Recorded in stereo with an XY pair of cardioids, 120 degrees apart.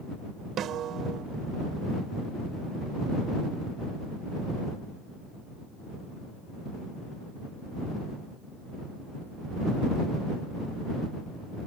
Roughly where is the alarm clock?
I don't hear an alarm clock.